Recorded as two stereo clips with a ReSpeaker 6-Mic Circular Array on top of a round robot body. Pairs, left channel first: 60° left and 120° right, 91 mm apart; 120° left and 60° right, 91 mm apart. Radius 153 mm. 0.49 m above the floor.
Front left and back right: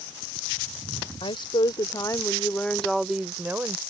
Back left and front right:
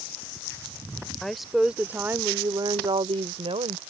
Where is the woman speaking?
35° left; by 3.8 s 55° right.